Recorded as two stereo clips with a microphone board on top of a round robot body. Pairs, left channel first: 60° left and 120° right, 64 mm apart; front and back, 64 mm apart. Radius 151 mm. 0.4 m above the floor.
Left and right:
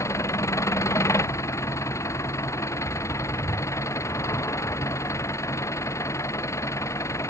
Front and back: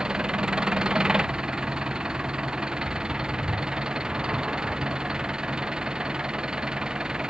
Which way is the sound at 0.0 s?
100° left.